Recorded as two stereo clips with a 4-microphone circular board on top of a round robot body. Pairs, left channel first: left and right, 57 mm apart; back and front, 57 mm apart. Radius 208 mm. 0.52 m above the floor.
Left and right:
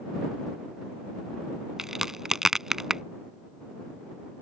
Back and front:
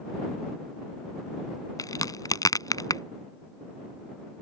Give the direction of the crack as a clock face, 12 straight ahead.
6 o'clock.